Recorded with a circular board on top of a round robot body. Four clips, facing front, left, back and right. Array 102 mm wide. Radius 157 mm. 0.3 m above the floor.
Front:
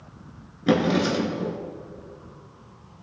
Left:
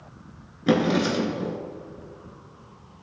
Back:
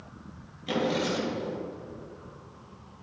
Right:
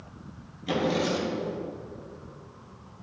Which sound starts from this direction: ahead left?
A drawer, at 0.7 s.